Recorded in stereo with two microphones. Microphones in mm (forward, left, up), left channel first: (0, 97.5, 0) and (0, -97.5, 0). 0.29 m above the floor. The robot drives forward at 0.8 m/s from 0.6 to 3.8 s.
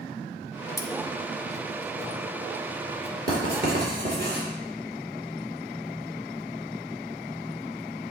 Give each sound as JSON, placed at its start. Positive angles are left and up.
{"t": 0.8, "sound": "cutlery clinking", "side_deg": 15, "distance_m": 0.7}
{"t": 3.3, "sound": "writing", "side_deg": -55, "distance_m": 3.5}